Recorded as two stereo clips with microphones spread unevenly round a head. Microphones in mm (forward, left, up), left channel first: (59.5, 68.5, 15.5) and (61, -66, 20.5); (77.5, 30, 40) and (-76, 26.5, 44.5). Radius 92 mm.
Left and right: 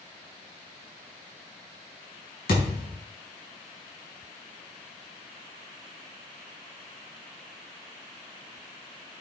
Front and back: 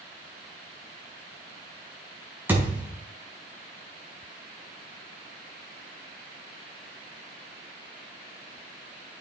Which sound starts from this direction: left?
A thud, at 2.5 s.